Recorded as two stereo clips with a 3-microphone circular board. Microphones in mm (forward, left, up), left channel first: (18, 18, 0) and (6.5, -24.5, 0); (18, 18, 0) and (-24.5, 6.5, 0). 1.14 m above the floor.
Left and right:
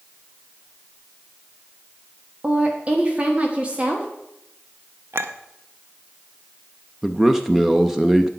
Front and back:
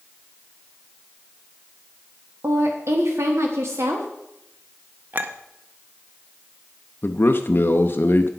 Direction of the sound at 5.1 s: 120° right.